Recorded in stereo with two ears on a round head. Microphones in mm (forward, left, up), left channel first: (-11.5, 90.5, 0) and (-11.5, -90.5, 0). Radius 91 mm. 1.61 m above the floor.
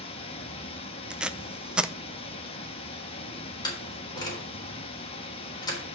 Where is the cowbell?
No cowbell in this recording.